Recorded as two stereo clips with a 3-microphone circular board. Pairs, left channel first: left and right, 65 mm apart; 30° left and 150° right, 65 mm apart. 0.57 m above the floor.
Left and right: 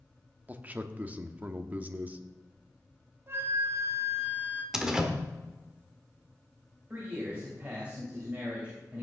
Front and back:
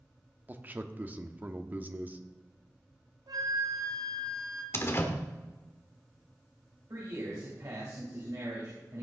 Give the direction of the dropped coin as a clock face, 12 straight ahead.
I don't hear a dropped coin.